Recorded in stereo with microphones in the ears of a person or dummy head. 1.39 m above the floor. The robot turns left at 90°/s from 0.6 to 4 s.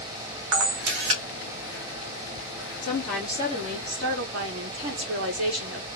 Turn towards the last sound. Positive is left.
turn(degrees=-75)